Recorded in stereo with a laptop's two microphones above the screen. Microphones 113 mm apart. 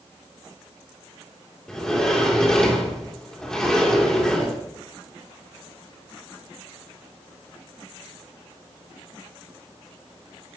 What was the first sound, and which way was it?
A sliding door, 5° left (ahead or behind).